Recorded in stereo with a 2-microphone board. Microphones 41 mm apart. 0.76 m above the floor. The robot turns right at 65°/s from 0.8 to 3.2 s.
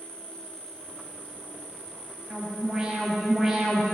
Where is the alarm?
20° right (ahead or behind), 1.4 m; by 3.8 s 10° right (ahead or behind), 1.4 m.